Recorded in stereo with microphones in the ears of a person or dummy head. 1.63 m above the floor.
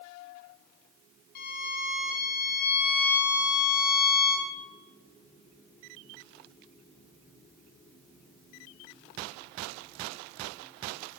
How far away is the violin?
About 1.5 m.